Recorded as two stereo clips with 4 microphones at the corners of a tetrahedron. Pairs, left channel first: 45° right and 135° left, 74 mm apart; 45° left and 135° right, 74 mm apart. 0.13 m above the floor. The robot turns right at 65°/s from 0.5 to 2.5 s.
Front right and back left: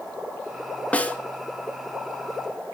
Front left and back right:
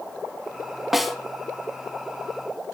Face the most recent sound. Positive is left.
turn(degrees=50)